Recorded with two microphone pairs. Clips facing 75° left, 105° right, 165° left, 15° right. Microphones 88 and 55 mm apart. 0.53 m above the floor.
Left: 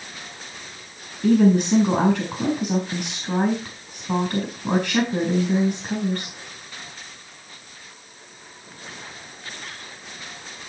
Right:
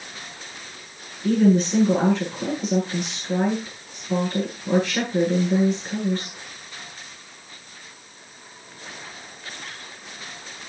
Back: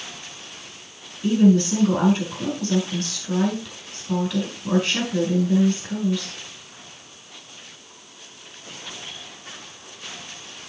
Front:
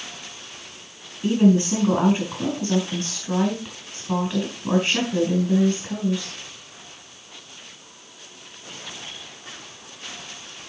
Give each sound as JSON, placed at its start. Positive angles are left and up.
{"t": 1.2, "sound": "a woman speaking", "azimuth_deg": 50, "distance_m": 4.0}